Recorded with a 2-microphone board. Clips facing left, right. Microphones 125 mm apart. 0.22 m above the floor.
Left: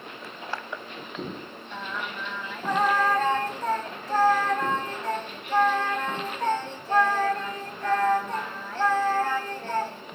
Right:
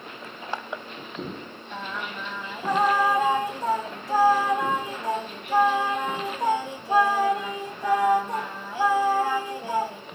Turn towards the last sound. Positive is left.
turn(degrees=-10)  # may be behind; listen again after turning